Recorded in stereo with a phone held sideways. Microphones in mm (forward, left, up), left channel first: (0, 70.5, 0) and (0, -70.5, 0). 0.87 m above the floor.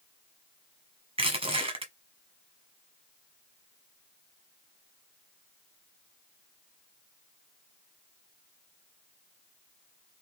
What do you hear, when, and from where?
1.2 s crushing: 45° right (ahead or behind), 1.0 m